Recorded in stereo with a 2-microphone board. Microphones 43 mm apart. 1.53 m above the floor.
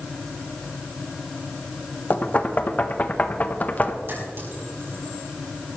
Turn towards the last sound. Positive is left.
turn(degrees=-60)  # may be behind; listen again after turning